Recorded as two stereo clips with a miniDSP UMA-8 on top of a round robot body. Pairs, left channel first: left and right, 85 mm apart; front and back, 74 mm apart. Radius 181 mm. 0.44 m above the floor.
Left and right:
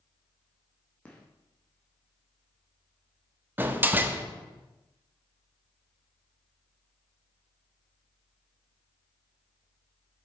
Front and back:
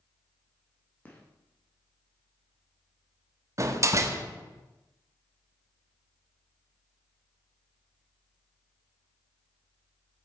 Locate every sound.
1.1 s a gunshot: 35° left, 1.4 m
3.6 s a door slam: 150° right, 0.8 m